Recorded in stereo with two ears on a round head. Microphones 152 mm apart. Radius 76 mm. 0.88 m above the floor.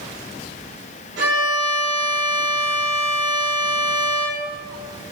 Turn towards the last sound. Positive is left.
turn(degrees=-65)  # may be behind; listen again after turning